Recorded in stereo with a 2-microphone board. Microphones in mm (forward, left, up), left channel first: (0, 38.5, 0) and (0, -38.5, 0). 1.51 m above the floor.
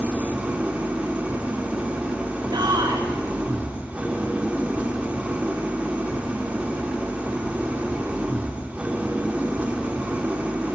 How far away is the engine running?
About 1.5 m.